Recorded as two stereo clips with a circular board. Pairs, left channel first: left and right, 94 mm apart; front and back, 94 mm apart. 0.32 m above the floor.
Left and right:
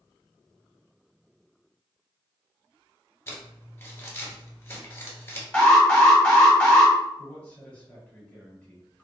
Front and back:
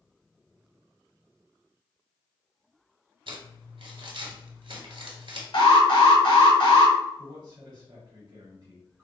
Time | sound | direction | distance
3.3 | crumpling | 150° left | 0.9 m
5.5 | an alarm | 10° left | 1.0 m
7.2 | a man speaking | 165° left | 1.2 m